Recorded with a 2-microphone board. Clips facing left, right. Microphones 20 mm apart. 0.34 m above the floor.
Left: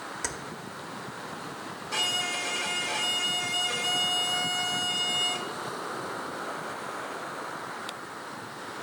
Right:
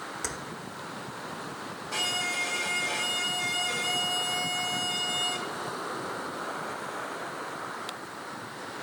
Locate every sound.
0.2 s keys jangling: 15° left (ahead or behind), 0.6 m
1.9 s a violin: 5° left (ahead or behind), 0.7 m